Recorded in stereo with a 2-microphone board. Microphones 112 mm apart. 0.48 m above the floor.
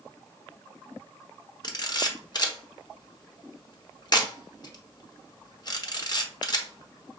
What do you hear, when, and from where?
1.6 s a camera shutter: 40° left (ahead or behind), 0.8 m